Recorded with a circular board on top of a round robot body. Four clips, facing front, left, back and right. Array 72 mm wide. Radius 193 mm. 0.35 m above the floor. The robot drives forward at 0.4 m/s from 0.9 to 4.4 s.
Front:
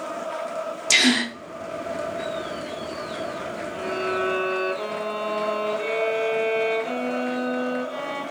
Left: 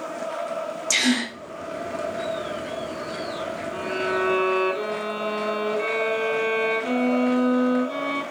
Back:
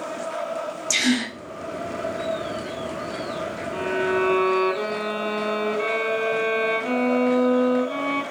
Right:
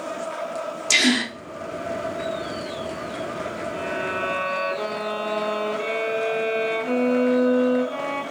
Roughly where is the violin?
Behind left.